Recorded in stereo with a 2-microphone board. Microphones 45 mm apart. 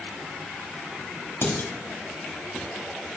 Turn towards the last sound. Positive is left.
turn(degrees=65)  # may be behind; listen again after turning